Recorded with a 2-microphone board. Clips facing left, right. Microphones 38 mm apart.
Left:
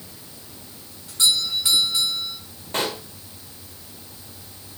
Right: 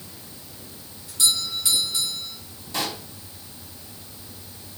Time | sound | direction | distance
1.1 | a doorbell | 35° left (ahead or behind) | 6.5 m
2.7 | a pop | 45° left (ahead or behind) | 1.8 m